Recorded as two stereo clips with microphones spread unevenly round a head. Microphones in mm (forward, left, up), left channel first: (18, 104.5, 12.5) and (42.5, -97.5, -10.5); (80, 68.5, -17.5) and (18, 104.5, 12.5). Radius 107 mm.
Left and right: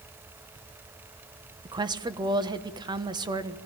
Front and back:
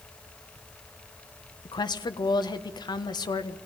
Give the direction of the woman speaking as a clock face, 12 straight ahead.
12 o'clock.